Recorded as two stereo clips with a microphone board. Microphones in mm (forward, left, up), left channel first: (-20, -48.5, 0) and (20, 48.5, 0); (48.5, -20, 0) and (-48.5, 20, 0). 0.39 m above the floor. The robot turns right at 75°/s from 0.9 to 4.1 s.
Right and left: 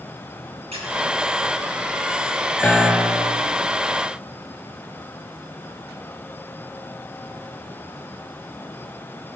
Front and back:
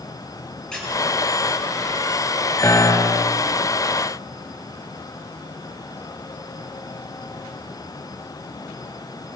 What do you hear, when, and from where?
0.7 s a squeak: 60° left, 4 m
2.6 s a piano: 55° right, 0.7 m; by 3.4 s 5° left, 0.7 m